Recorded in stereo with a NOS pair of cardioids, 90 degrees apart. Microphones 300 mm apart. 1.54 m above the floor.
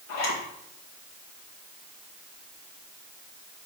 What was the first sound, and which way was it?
A zipper, 60° left.